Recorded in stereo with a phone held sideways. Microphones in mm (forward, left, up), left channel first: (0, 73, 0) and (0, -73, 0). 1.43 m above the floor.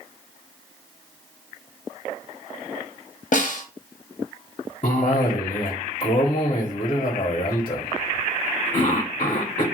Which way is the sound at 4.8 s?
40° left (ahead or behind).